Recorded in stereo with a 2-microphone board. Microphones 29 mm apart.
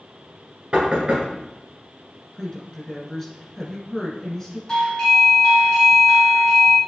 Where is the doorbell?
20° left (ahead or behind), 1.5 m.